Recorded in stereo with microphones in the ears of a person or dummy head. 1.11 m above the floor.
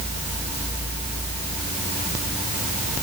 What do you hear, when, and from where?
Only background noise.